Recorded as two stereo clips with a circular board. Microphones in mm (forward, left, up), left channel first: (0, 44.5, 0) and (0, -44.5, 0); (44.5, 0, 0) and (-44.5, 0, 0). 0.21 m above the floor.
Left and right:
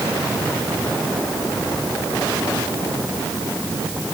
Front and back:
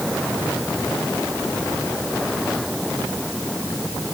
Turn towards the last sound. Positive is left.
No sound to turn to.